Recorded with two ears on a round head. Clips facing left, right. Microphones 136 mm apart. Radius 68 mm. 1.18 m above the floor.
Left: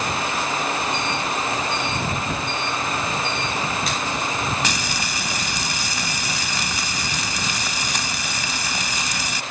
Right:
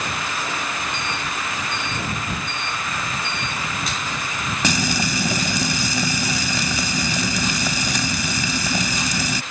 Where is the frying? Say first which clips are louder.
Right 5 dB; 85° right.